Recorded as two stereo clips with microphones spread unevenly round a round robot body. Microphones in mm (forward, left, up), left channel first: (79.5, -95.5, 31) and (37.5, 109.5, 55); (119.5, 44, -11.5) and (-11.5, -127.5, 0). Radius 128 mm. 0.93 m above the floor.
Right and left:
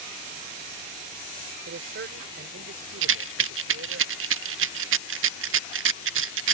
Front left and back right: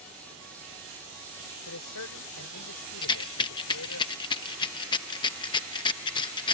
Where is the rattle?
120° left.